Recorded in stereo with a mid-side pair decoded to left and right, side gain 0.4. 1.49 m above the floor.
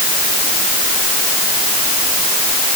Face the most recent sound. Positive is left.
No sound to turn to.